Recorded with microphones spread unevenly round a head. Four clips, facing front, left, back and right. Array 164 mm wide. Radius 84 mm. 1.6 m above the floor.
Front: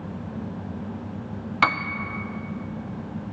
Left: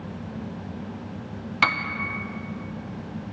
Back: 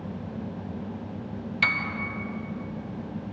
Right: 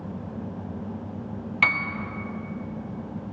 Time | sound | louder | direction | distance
1.6 | a piano | left 2 dB, front 8 dB | 20° left | 0.7 m